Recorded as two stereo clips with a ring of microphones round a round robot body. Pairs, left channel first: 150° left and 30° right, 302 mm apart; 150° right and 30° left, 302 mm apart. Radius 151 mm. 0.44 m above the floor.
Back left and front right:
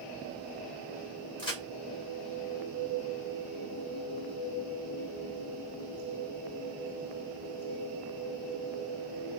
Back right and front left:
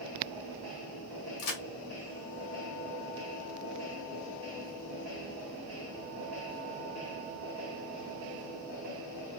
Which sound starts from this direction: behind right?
A crack, at 1.4 s.